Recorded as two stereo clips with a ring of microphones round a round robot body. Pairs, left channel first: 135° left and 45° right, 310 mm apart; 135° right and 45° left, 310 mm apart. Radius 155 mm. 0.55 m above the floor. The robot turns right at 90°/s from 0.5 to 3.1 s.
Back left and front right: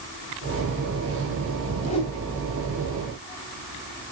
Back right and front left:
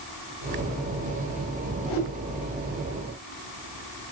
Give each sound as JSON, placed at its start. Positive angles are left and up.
{"t": 1.9, "sound": "a whoosh", "azimuth_deg": -160, "distance_m": 3.0}